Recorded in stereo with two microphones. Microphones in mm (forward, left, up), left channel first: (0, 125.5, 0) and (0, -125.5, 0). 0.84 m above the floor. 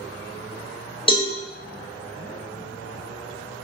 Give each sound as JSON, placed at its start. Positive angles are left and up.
{"t": 1.1, "sound": "a cowbell", "side_deg": 20, "distance_m": 0.7}